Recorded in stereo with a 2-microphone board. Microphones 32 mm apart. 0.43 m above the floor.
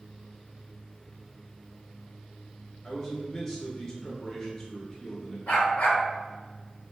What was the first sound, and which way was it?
A man speaking, 25° left (ahead or behind).